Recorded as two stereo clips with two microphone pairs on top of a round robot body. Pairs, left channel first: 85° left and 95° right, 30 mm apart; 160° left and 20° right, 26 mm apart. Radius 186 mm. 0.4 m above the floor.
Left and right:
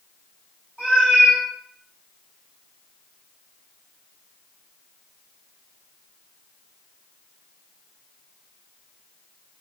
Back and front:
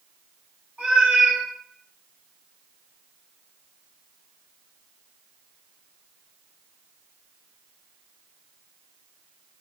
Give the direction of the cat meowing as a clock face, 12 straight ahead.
1 o'clock.